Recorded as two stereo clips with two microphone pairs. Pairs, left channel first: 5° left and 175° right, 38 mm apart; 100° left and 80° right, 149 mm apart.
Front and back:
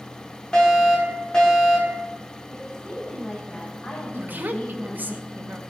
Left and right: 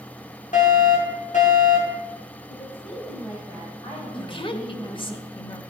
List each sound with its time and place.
0.5 s a fire alarm: 70° left, 5 m
2.5 s a woman speaking: 50° left, 5 m
4.1 s a woman speaking: 150° left, 1.8 m